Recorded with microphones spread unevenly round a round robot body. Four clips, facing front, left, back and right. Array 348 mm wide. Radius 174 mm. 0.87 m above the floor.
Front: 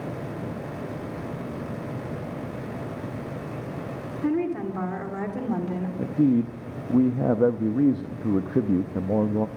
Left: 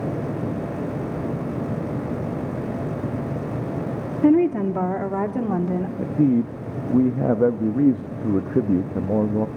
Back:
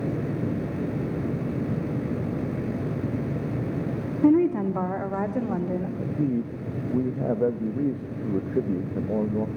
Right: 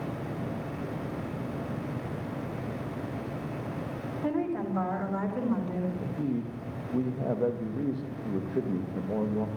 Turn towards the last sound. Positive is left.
turn(degrees=55)